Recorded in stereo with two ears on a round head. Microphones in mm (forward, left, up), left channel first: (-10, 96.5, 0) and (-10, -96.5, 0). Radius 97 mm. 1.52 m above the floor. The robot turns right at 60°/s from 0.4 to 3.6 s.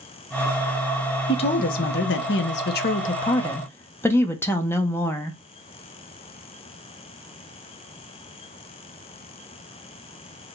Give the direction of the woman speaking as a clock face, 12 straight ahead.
11 o'clock.